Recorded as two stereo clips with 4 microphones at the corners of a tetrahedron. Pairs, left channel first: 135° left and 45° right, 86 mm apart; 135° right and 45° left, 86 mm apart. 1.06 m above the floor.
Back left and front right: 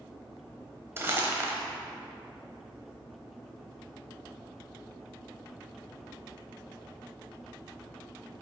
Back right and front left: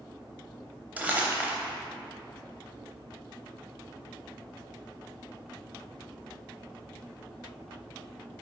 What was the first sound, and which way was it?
Crumpling, 10° right.